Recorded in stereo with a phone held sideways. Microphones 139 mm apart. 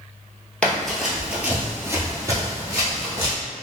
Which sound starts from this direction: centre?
Running footsteps, at 0.6 s.